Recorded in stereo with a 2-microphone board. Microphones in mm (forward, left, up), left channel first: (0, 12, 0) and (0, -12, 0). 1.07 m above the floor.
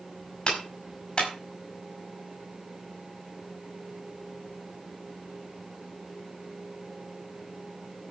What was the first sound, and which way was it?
A clap, 35° left (ahead or behind).